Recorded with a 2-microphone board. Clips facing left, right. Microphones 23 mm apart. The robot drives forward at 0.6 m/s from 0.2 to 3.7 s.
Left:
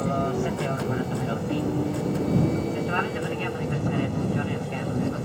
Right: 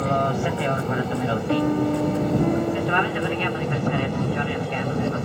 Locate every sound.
0.0 s an aircraft: 25° right (ahead or behind); by 5.3 s 30° right (ahead or behind)
1.5 s a piano: 65° right (ahead or behind); by 3.8 s 60° right (ahead or behind)